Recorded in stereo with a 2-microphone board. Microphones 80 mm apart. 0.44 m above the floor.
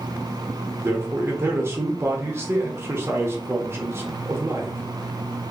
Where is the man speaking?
30° right (ahead or behind), 0.9 m.